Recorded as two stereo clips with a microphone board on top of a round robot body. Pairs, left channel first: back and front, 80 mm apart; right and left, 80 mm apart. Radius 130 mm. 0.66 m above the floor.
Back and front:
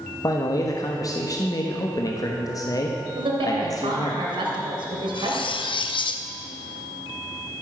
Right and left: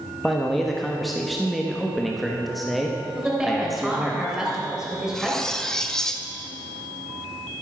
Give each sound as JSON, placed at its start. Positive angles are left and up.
{"t": 0.2, "sound": "a man speaking", "azimuth_deg": 180, "distance_m": 1.4}
{"t": 3.1, "sound": "a woman speaking", "azimuth_deg": 10, "distance_m": 3.5}
{"t": 5.1, "sound": "cutlery clinking", "azimuth_deg": -175, "distance_m": 0.8}